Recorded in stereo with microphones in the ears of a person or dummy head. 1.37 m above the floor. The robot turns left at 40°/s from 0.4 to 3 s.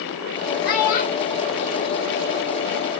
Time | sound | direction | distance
0.7 | a child speaking | 55° left (ahead or behind) | 0.9 m